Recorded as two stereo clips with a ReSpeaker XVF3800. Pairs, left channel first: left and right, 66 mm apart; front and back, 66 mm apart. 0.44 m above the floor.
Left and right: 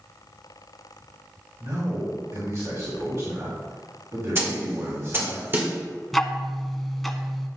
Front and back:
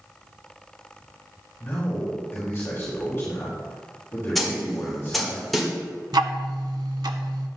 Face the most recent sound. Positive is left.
turn(degrees=175)